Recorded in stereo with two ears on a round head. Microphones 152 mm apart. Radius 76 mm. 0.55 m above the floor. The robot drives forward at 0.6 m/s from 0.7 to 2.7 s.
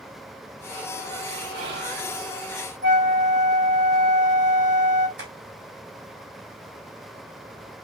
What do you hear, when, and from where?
1.5 s whispering: 65° right (ahead or behind), 3 m; by 2.1 s 60° right (ahead or behind), 3.5 m
2.8 s a flute: 75° right (ahead or behind), 2.0 m
5.2 s tapping: 65° right (ahead or behind), 3 m